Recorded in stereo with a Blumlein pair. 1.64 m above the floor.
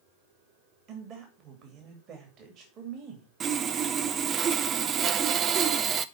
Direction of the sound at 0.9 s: 35° right.